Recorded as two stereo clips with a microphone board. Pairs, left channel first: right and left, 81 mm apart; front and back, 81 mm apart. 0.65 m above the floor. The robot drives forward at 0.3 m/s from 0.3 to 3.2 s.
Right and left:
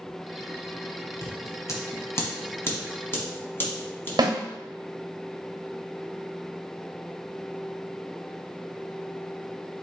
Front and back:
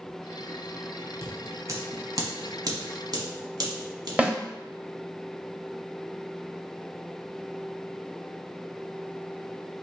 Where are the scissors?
125° right, 0.8 m; by 4.1 s 150° right, 1.2 m.